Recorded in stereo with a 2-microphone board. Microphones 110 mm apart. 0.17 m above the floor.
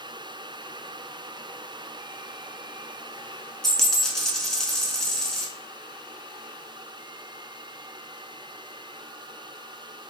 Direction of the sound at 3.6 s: 5° left (ahead or behind).